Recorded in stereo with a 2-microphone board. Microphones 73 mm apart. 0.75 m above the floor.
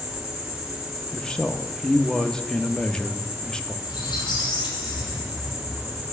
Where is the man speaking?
10° left (ahead or behind), 0.5 m.